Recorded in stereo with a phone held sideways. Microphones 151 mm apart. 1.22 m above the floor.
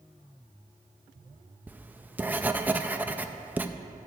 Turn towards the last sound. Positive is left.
turn(degrees=-10)  # may be behind; listen again after turning